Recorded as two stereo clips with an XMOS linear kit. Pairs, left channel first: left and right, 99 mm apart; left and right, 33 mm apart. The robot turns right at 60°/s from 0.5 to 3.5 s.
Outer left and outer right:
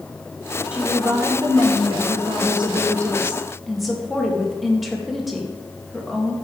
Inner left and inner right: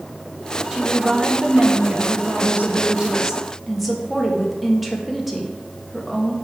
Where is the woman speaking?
170° right, 1.3 m; by 6.3 s straight ahead, 1.3 m.